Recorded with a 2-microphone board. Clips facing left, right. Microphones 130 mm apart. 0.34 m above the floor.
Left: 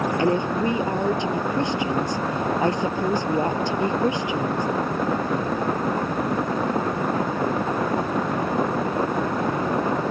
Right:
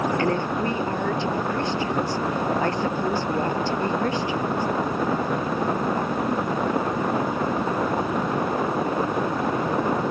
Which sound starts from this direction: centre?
A woman speaking, at 0.2 s.